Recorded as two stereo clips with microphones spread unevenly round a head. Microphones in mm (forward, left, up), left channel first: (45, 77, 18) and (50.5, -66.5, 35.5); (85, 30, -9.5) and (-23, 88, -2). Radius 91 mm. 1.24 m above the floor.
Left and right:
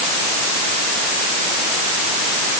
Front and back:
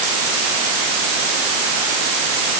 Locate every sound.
Only background noise.